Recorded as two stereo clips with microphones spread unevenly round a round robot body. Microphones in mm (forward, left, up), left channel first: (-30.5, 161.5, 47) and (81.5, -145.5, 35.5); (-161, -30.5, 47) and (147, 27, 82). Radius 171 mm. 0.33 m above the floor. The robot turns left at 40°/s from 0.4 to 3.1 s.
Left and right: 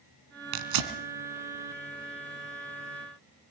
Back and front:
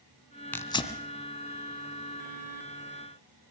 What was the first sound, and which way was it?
Tearing paper, 85° right.